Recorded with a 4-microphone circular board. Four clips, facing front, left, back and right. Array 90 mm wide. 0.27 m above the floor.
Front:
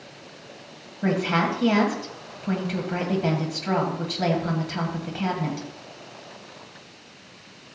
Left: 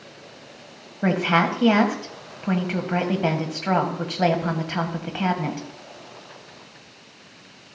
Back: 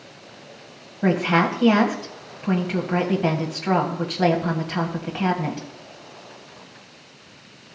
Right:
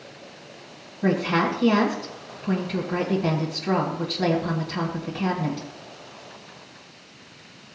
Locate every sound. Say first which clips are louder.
1.0 s a woman speaking: left 2 dB, back 3 dB; 110° left, 1.5 m